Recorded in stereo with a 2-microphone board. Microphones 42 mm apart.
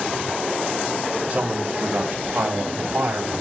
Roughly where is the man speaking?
Right.